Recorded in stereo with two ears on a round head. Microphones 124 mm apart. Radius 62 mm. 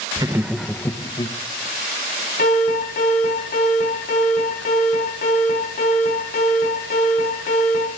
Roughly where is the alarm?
Left.